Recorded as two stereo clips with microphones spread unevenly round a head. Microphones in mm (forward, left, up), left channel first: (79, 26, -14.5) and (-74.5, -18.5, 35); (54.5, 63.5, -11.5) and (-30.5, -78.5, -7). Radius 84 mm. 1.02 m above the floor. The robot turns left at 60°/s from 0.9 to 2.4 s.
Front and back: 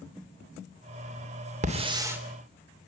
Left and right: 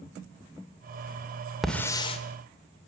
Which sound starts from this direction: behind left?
A hiss, at 1.6 s.